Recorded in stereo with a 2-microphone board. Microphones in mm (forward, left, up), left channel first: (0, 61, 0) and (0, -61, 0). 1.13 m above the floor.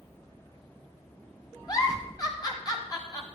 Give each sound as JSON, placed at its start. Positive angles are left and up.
{"t": 1.7, "sound": "a giggle", "side_deg": 30, "distance_m": 1.7}